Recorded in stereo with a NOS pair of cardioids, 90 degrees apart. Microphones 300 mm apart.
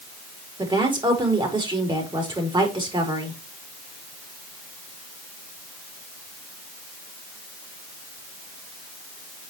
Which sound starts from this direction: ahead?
A woman speaking, at 0.6 s.